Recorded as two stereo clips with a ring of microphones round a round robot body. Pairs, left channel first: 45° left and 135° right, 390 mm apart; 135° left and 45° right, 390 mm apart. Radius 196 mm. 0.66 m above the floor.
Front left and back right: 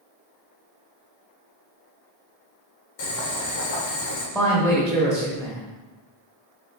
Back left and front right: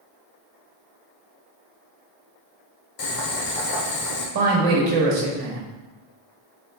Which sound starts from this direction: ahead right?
A woman speaking, at 4.3 s.